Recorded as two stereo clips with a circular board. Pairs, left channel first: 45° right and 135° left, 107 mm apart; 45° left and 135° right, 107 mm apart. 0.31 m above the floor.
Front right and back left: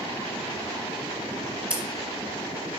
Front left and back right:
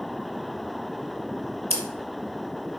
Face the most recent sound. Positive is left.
turn(degrees=-145)